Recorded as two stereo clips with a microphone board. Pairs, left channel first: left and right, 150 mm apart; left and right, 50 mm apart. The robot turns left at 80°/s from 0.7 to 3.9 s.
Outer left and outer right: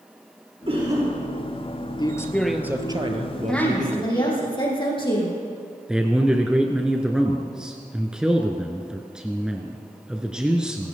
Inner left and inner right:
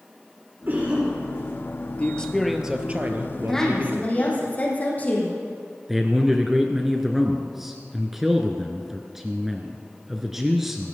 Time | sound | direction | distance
0.7 | a cough | 140° right | 7 m
2.0 | a man speaking | 40° left | 1.8 m
3.5 | a woman speaking | straight behind | 4.5 m
5.9 | a man speaking | 5° right (ahead or behind) | 1.3 m